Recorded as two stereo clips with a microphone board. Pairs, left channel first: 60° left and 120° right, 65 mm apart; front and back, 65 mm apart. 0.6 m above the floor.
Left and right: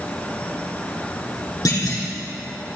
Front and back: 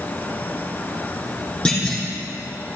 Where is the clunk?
75° left, 4 m.